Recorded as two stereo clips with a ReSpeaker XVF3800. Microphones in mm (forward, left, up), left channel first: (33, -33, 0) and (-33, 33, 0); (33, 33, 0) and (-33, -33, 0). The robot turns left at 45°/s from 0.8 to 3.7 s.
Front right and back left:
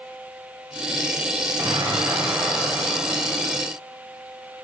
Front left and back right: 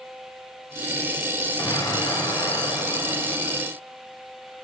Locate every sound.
1.6 s an explosion: 90° left, 2 m; by 3.7 s 5° right, 2 m